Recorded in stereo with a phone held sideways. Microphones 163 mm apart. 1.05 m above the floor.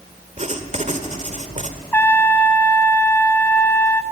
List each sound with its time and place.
0.4 s writing: 45° right (ahead or behind), 1.8 m
1.9 s a trumpet: 10° left (ahead or behind), 1.8 m